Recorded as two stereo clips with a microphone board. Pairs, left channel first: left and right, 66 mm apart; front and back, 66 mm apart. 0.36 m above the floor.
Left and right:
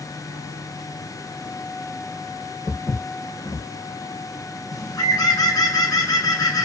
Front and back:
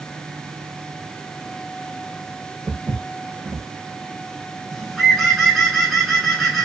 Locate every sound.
2.7 s footsteps: 90° left, 0.8 m
4.7 s a bird: 85° left, 1.4 m